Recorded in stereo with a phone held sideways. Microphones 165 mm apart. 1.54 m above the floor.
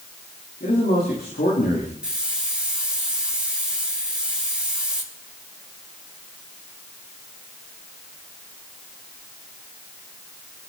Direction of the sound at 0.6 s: 75° left (ahead or behind).